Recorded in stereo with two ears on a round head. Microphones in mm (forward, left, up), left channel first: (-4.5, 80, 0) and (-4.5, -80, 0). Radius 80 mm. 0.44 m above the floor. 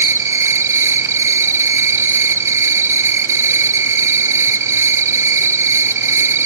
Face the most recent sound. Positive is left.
turn(degrees=-15)  # may be behind; listen again after turning